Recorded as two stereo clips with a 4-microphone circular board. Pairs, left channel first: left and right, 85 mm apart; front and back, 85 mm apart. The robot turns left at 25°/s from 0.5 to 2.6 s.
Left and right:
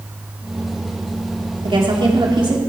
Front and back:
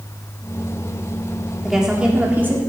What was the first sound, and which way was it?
A woman speaking, 95° right.